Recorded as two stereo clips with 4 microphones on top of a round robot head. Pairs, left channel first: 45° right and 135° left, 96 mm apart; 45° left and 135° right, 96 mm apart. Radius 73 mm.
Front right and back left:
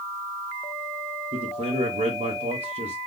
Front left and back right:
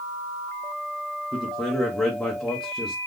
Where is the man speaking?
125° left, 0.7 m.